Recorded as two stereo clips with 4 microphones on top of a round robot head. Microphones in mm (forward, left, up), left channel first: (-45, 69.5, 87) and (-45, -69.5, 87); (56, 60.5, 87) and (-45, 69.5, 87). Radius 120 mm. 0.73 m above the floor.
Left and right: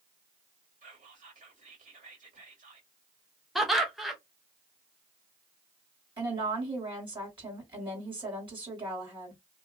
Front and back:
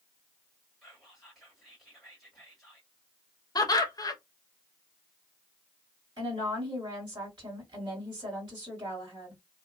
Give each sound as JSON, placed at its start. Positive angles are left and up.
{"t": 0.8, "sound": "whispering", "azimuth_deg": -95, "distance_m": 1.7}
{"t": 3.5, "sound": "laughter", "azimuth_deg": 0, "distance_m": 0.9}
{"t": 6.2, "sound": "a woman speaking", "azimuth_deg": -140, "distance_m": 1.8}